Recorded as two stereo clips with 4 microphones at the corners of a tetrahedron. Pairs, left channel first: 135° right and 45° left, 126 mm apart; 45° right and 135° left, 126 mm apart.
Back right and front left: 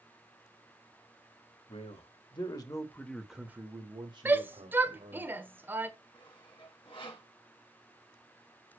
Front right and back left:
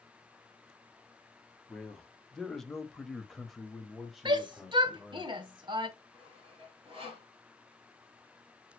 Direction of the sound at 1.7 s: 130° right.